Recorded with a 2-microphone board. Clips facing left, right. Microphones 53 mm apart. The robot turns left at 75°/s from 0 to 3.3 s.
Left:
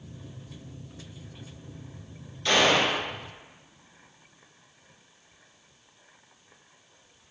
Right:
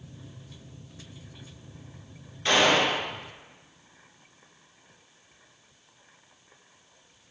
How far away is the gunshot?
About 2.0 m.